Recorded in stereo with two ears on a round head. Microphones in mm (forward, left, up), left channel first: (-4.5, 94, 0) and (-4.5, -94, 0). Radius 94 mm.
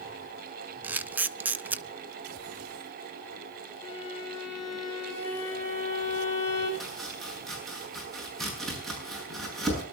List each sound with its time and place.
0.8 s a camera shutter: 10° right (ahead or behind), 0.6 m
3.8 s a violin: 20° left (ahead or behind), 9.5 m
6.8 s chopping: centre (ahead or behind), 7.5 m